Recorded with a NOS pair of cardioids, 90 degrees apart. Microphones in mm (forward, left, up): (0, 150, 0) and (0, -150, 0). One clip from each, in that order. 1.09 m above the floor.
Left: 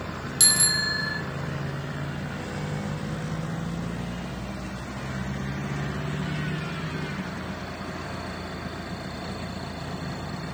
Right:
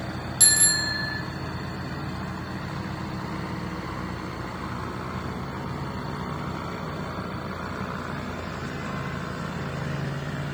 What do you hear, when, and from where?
0.4 s a bicycle bell: 25° left, 2.5 m